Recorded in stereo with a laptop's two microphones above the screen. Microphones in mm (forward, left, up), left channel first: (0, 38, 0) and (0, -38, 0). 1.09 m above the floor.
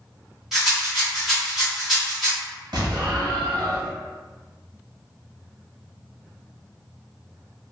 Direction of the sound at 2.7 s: 70° right (ahead or behind).